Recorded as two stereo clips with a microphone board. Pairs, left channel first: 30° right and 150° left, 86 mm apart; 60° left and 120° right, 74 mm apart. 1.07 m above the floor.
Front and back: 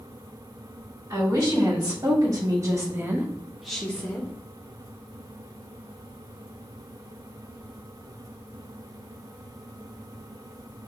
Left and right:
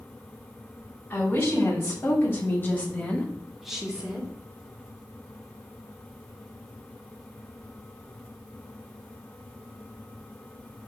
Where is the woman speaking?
115° left, 2.0 m; by 4.3 s 70° right, 0.8 m.